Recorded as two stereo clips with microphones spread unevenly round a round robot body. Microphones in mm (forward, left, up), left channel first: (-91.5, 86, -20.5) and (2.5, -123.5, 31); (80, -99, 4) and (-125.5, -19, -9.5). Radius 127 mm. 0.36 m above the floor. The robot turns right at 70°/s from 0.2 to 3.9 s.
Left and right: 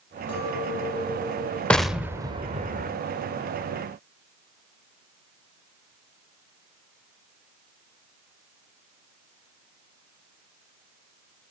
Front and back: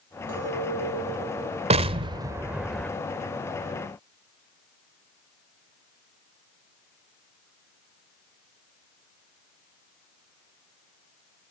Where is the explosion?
175° left, 1.0 m; by 2.9 s 100° right, 1.0 m.